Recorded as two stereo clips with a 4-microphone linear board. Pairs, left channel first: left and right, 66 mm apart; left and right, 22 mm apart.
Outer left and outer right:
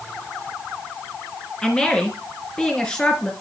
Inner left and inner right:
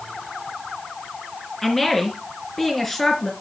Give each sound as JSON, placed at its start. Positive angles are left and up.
{"t": 1.6, "sound": "a woman speaking", "side_deg": 15, "distance_m": 3.5}